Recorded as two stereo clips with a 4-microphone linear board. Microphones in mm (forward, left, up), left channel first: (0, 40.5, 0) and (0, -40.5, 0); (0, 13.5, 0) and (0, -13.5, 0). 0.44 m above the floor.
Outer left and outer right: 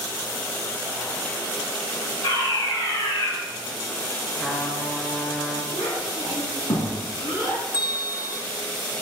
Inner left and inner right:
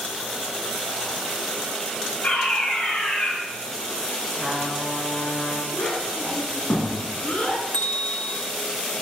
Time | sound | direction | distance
2.2 | a fire alarm | 65° left (ahead or behind) | 5 m
4.3 | a trumpet | 10° left (ahead or behind) | 1.5 m
5.7 | a child speaking | 75° left (ahead or behind) | 4 m
7.7 | a bell | 55° left (ahead or behind) | 1.1 m